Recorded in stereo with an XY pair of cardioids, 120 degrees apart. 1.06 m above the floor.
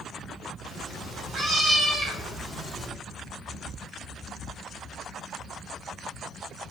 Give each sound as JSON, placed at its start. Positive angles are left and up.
{"t": 0.7, "sound": "a cat meowing", "azimuth_deg": -45, "distance_m": 1.7}